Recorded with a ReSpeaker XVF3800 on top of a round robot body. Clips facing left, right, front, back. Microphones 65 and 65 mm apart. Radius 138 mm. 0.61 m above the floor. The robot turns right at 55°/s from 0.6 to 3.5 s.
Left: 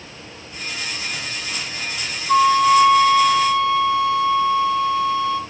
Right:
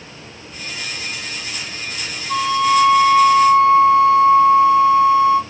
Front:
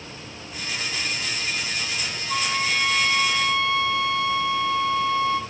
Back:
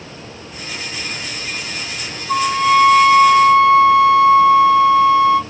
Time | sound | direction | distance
2.3 | a flute | 135° left | 1.3 m